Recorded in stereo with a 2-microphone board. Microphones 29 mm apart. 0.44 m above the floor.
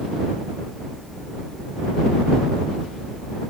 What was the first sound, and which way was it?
Only background noise.